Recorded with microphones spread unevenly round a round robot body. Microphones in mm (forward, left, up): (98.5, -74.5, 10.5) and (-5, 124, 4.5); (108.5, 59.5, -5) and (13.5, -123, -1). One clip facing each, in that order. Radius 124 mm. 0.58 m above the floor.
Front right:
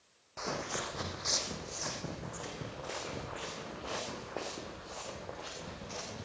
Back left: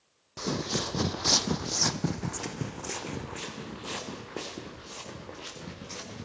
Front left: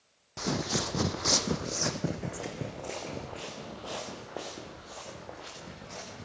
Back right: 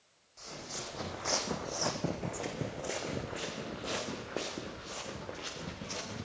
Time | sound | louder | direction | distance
0.4 | footsteps | back left 8 dB, front left 14 dB | 75° left | 1.4 m